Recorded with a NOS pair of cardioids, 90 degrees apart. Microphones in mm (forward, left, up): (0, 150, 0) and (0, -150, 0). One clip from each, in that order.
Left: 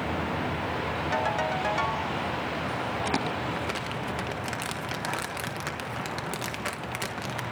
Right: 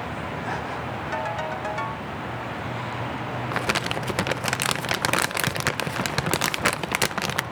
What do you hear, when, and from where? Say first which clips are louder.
1.1 s a ringtone: left 1 dB; 5° left, 1.6 m
3.5 s crumpling: right 6 dB; 60° right, 1.0 m